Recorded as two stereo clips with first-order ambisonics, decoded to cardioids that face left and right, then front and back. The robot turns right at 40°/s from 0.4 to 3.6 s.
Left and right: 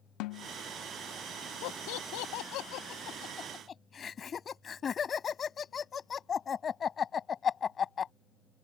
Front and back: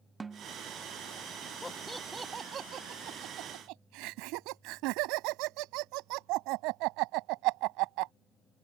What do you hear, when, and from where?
0.2 s a snare drum: 105° left; by 0.5 s 110° left
1.6 s laughter: 80° left; by 8.1 s 160° left